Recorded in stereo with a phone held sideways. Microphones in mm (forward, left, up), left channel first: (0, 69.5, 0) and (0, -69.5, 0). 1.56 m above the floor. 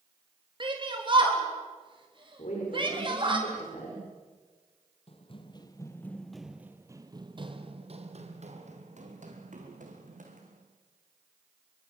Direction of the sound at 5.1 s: 45° left (ahead or behind).